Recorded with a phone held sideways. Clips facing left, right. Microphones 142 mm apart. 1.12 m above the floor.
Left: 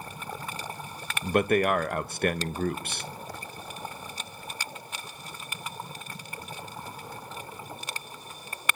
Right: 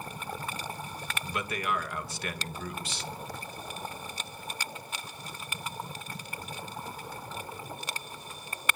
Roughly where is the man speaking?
Left.